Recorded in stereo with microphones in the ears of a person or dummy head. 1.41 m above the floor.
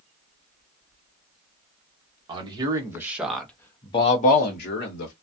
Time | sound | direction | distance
2.3 | a man speaking | 30° right (ahead or behind) | 1.1 m